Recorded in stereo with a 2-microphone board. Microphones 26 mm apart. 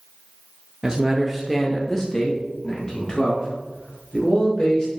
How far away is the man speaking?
About 0.7 m.